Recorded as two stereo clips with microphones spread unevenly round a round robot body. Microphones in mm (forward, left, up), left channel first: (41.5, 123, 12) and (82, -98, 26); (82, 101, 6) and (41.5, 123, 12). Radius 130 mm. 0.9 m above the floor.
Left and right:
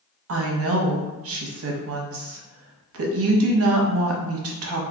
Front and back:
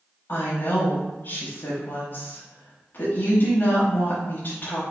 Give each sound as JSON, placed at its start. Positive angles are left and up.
{"t": 0.3, "sound": "a woman speaking", "azimuth_deg": -75, "distance_m": 0.8}